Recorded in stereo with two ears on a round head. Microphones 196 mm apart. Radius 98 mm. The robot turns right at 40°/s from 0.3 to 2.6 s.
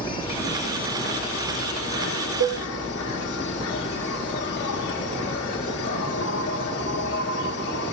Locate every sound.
0.0 s an insect: 25° left, 1.3 m; by 7.9 s 115° left, 1.3 m
2.4 s a cowbell: 60° right (ahead or behind), 1.6 m